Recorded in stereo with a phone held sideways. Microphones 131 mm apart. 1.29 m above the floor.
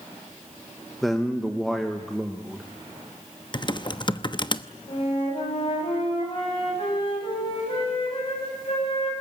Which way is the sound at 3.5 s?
35° left (ahead or behind).